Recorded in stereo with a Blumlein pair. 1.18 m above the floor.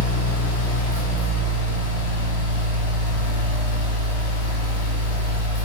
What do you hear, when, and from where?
0.0 s a fan: 60° left, 0.9 m